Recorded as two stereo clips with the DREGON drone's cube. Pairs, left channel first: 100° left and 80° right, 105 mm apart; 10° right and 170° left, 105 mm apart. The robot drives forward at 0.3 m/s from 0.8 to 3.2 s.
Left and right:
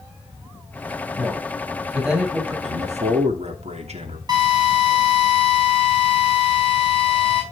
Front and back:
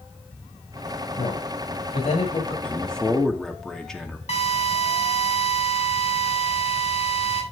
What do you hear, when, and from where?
1.2 s a man speaking: 5° left, 6.5 m
2.6 s a man speaking: 90° right, 2.5 m; by 4.2 s 95° right, 2.5 m
4.3 s a drill: 25° right, 6.5 m